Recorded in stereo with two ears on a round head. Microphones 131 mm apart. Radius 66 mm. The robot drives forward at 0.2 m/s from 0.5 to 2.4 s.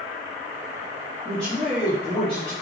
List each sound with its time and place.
1.2 s a man speaking: 5° left (ahead or behind), 2.5 m